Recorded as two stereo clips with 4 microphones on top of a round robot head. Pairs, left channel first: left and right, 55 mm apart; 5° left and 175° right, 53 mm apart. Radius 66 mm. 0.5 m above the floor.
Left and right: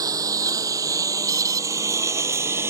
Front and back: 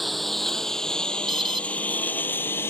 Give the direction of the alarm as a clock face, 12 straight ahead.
3 o'clock.